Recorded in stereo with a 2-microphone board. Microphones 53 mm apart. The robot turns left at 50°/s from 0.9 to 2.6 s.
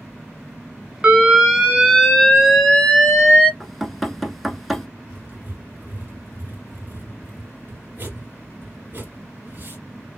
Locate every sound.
1.0 s an alarm: 15° right (ahead or behind), 1.1 m; by 3.5 s 10° left (ahead or behind), 1.1 m
3.6 s knocking: centre (ahead or behind), 0.7 m
5.1 s writing: 40° right (ahead or behind), 2.5 m